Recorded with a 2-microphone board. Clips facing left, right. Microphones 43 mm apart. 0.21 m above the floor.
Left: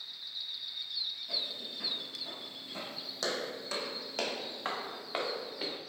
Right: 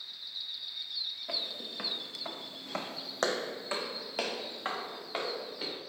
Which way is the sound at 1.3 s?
65° right (ahead or behind).